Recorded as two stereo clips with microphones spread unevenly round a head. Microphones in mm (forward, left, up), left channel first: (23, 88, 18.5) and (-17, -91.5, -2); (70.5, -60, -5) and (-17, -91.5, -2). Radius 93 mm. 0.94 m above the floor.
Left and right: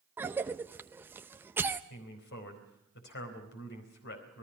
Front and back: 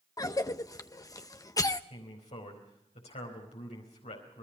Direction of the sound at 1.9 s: 45° left.